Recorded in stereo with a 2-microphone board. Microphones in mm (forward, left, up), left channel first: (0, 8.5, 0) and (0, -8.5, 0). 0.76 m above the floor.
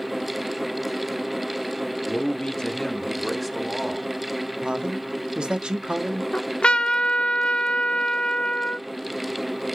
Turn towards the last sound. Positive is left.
turn(degrees=80)